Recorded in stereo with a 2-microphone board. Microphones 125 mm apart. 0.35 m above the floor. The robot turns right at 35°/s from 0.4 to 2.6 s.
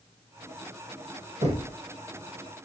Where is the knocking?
65° right (ahead or behind), 1.3 m.